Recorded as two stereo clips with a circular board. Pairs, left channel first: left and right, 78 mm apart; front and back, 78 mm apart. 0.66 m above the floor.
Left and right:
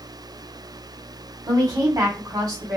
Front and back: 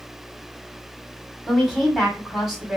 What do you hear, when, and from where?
1.5 s a woman speaking: 95° right, 1.7 m